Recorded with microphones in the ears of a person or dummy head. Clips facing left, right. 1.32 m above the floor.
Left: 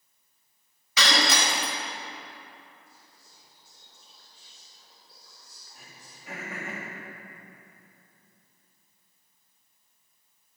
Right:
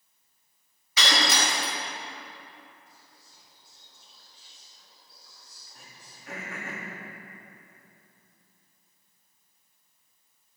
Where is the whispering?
40° left (ahead or behind), 3.5 m.